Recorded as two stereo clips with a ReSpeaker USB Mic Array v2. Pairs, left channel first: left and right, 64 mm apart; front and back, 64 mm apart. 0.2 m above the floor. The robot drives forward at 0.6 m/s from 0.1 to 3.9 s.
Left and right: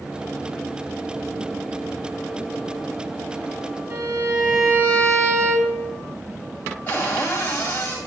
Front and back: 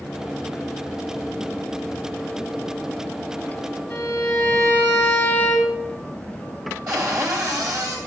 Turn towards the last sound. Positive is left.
turn(degrees=150)